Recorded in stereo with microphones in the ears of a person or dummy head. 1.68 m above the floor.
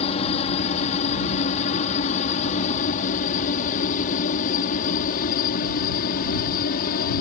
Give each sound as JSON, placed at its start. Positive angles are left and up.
{"t": 0.0, "sound": "a helicopter", "side_deg": 30}